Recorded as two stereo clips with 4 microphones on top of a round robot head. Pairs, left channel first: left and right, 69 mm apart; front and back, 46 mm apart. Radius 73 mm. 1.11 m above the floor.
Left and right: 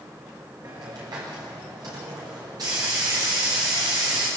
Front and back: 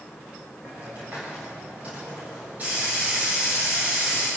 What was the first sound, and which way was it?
A hiss, 120° right.